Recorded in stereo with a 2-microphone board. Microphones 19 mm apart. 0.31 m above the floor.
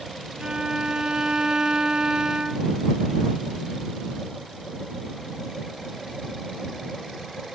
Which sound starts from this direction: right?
A violin, at 0.4 s.